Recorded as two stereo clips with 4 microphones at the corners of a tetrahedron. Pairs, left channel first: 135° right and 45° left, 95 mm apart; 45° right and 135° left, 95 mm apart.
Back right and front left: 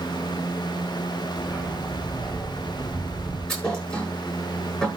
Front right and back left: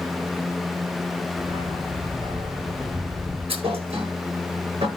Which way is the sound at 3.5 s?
150° left.